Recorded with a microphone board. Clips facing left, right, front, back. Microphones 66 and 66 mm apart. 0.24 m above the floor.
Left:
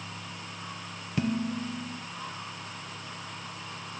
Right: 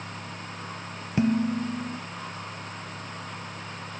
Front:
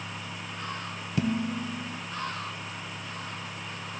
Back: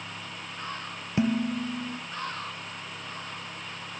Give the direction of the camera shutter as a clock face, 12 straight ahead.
I don't hear a camera shutter.